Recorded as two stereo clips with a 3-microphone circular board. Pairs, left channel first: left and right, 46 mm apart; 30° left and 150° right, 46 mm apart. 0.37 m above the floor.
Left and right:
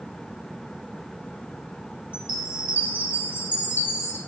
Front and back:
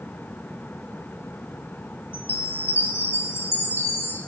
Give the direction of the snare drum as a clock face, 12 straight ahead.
No snare drum in this recording.